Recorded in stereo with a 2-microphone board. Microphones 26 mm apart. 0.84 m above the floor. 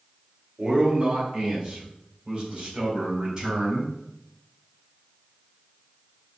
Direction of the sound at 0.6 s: 50° right (ahead or behind).